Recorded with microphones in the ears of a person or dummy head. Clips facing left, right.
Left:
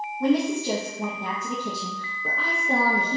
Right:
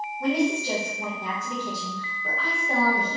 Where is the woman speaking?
80° left, 0.9 m.